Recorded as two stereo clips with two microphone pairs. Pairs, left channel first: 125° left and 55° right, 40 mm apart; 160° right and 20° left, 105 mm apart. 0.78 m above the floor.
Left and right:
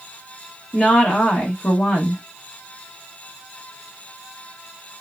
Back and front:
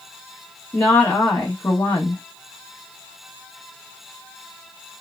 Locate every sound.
0.7 s a woman speaking: 155° left, 0.9 m